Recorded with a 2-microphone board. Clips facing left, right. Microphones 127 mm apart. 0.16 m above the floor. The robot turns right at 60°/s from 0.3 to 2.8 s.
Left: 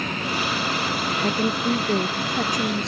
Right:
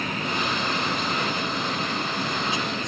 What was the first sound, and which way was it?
A woman speaking, 50° left.